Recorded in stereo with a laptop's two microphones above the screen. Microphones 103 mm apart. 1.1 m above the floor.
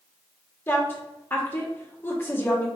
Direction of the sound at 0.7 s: 20° left (ahead or behind).